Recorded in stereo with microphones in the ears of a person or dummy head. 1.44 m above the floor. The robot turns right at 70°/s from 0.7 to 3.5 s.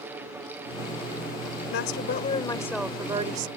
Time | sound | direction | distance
1.7 | a woman speaking | 105° left | ?